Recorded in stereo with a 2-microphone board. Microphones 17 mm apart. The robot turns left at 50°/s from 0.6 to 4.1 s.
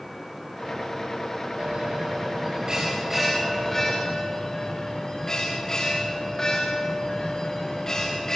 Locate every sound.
1.6 s a bell: 90° right, 9.5 m; by 8.4 s 145° left, 9.5 m